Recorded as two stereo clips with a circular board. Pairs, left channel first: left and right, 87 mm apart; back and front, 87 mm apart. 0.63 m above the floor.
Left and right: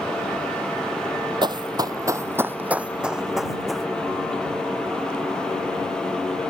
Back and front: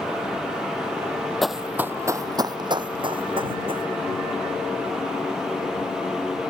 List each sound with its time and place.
1.4 s running footsteps: 90° right; by 3.9 s straight ahead